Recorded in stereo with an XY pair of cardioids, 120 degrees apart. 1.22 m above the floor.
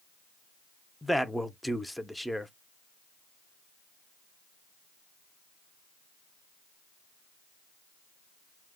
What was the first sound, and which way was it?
A man speaking, 5° left.